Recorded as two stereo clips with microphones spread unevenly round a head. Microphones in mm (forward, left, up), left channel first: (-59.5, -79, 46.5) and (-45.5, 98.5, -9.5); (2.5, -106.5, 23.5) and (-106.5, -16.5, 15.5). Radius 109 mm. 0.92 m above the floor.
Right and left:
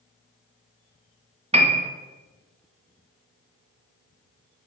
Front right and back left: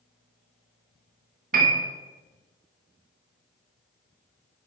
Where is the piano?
130° left, 1.4 m.